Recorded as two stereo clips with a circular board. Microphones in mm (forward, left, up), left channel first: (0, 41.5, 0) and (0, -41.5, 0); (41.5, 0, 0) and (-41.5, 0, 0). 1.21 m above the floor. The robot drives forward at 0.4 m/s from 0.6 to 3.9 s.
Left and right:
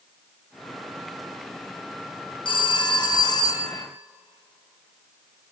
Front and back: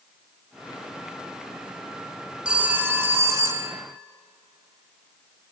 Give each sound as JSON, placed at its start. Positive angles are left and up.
{"t": 2.5, "sound": "a phone ringing", "azimuth_deg": 105, "distance_m": 0.8}